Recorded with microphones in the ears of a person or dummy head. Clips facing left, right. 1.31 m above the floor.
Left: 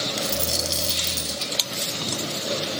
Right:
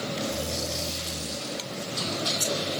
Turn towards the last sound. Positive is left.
turn(degrees=70)  # may be behind; listen again after turning